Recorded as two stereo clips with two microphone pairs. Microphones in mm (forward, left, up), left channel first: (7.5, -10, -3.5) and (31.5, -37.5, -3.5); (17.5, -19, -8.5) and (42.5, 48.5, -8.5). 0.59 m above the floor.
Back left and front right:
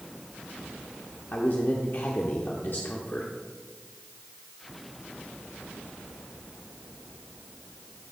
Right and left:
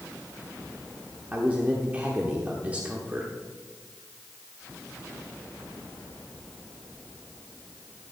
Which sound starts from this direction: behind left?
A man speaking, at 1.3 s.